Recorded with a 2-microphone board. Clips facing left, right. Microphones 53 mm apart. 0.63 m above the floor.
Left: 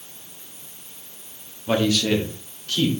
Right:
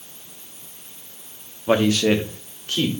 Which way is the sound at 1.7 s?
30° right (ahead or behind).